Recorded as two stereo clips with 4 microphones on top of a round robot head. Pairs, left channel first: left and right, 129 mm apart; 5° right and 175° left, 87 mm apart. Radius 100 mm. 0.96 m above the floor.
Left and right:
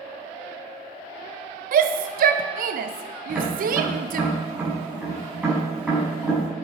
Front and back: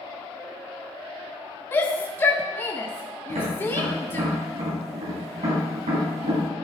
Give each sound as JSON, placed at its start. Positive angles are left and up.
{"t": 1.7, "sound": "a shout", "azimuth_deg": -75, "distance_m": 0.6}
{"t": 3.3, "sound": "tapping", "azimuth_deg": -170, "distance_m": 5.5}